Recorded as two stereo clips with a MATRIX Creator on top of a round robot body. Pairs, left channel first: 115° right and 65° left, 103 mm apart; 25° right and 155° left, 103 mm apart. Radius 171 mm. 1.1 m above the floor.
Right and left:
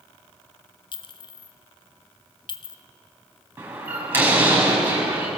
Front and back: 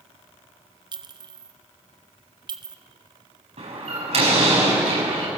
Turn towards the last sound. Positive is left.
turn(degrees=140)